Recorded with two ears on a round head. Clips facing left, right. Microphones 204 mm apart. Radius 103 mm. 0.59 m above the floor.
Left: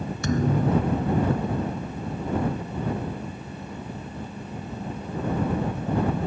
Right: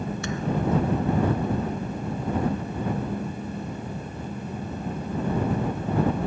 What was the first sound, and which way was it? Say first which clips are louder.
A thud: left 4 dB; 35° left (ahead or behind).